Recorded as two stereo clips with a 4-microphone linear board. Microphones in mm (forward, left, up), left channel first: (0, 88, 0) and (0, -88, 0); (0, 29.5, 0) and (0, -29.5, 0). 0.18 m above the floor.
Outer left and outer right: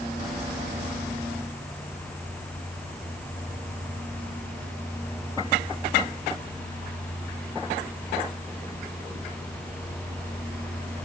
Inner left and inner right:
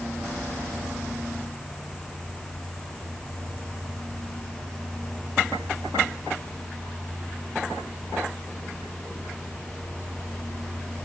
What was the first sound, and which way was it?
Only background noise.